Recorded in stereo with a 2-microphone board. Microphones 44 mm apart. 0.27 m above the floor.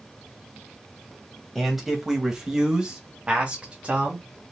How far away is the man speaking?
About 1.3 m.